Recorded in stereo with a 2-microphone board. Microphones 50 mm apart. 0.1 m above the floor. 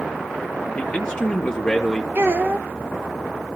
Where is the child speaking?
55° right (ahead or behind), 1.3 m.